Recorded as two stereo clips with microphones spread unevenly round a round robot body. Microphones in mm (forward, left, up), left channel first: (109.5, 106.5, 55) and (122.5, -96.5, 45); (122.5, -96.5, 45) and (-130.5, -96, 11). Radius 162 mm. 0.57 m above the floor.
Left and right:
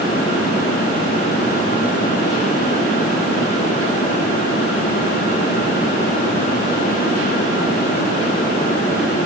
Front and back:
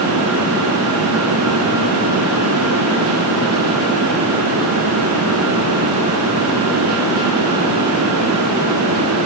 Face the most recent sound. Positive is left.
No sound to turn to.